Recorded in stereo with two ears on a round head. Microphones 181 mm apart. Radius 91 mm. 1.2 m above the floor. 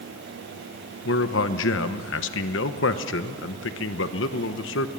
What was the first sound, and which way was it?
A man speaking, 70° left (ahead or behind).